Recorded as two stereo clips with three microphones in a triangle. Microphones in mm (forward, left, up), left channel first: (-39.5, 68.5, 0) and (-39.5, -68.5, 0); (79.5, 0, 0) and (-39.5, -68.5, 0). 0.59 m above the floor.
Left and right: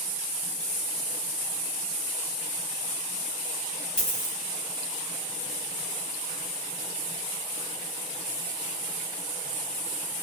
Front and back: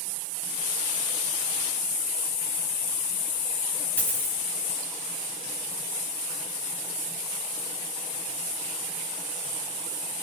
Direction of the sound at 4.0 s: 105° left.